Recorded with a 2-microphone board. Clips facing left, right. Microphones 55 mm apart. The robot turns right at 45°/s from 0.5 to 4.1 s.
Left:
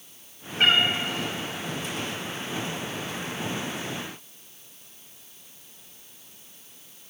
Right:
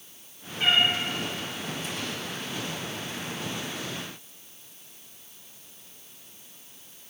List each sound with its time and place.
0.6 s a cat meowing: 70° left (ahead or behind), 1.1 m; by 0.8 s 80° left, 1.1 m